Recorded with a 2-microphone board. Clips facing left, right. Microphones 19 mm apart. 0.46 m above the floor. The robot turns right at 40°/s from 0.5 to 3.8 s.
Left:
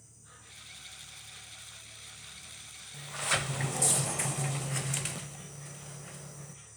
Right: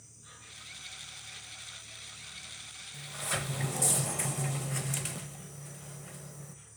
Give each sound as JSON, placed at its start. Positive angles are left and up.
{"t": 0.0, "sound": "an insect", "azimuth_deg": -100, "distance_m": 5.0}
{"t": 2.9, "sound": "a sliding door", "azimuth_deg": 130, "distance_m": 0.5}